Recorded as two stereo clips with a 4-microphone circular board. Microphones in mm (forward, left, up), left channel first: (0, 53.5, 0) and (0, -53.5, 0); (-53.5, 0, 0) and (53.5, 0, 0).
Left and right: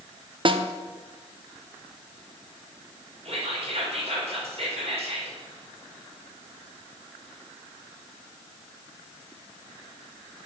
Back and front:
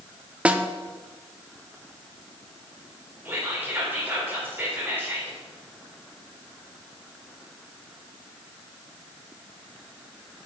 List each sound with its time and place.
0.5 s a snare drum: 75° right, 0.7 m
3.2 s whispering: 70° right, 4 m